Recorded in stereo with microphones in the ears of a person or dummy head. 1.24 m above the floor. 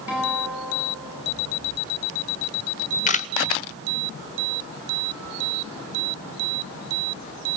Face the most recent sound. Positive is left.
turn(degrees=40)  # may be behind; listen again after turning